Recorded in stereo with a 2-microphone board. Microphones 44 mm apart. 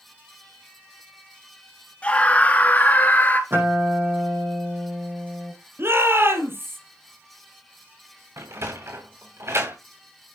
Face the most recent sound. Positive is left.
turn(degrees=-85)